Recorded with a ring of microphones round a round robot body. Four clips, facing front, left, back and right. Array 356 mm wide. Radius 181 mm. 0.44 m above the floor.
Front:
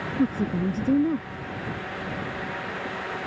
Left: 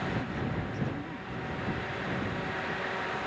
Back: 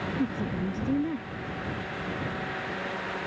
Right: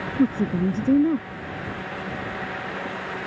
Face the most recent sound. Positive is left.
turn(degrees=-70)